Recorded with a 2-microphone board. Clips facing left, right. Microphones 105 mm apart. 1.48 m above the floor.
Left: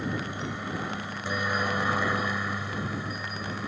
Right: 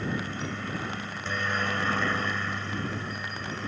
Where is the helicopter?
15° left (ahead or behind); by 3.7 s 10° left (ahead or behind).